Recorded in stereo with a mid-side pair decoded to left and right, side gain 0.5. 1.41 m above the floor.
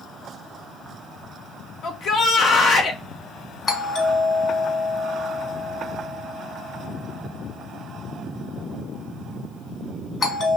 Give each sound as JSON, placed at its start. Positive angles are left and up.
{"t": 1.8, "sound": "a shout", "azimuth_deg": 60, "distance_m": 0.9}
{"t": 3.7, "sound": "a doorbell", "azimuth_deg": 50, "distance_m": 2.0}